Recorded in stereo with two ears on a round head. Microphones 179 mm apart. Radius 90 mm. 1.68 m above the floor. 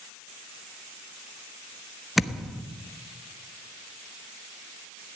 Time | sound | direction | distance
2.2 | a thud | centre (ahead or behind) | 1.2 m